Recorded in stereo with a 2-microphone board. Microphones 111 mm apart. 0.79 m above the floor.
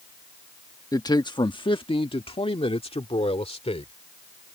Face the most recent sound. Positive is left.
turn(degrees=75)  # may be behind; listen again after turning